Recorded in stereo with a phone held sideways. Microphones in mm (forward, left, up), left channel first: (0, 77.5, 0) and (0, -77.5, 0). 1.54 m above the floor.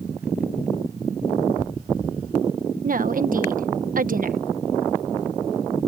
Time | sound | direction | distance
2.8 | a woman speaking | 65° right (ahead or behind) | ?